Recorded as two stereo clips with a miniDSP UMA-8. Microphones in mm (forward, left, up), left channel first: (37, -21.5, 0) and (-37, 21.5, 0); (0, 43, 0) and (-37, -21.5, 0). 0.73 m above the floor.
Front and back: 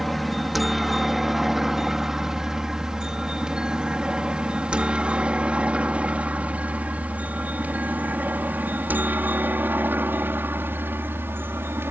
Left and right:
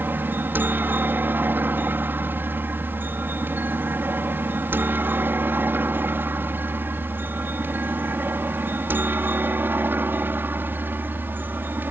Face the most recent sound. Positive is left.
turn(degrees=-165)